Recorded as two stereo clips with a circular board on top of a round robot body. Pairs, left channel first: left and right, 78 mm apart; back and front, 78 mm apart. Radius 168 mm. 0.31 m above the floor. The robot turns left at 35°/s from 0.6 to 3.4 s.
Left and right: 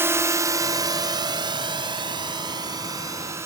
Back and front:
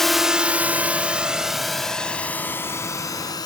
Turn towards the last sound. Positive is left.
turn(degrees=-145)